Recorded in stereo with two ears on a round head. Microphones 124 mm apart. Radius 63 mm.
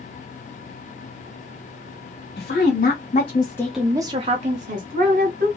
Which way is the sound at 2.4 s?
75° left (ahead or behind).